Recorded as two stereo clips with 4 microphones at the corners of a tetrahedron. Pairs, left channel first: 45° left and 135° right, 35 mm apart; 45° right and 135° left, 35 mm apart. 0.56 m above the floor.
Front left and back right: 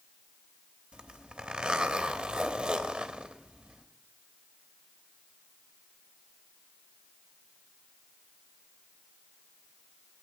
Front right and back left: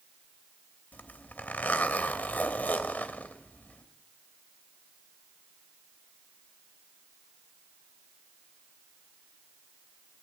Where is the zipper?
75° right, 0.9 m.